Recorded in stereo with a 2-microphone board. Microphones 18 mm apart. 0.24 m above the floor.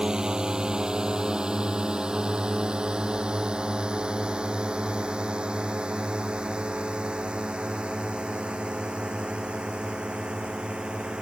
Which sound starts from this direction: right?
A drone, at 0.0 s.